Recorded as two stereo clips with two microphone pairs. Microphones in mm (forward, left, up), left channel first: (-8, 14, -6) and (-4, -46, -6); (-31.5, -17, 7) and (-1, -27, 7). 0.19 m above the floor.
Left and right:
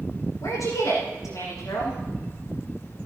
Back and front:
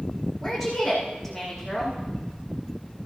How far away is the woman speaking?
About 9 m.